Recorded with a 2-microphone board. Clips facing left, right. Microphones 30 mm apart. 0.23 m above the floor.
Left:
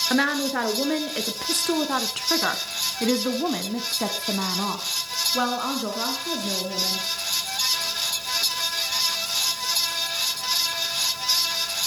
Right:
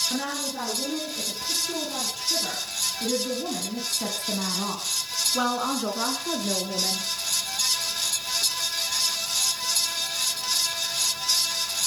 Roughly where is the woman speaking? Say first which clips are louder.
Left 8 dB; left.